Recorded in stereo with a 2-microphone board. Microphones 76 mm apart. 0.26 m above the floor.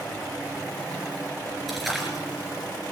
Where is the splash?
Centre (ahead or behind), 4 m.